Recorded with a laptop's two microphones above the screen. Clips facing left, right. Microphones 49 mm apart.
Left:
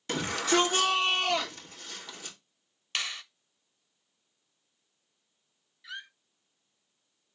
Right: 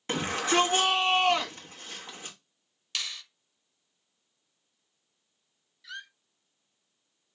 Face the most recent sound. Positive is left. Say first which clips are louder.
# even
turn(degrees=15)  # may be behind; listen again after turning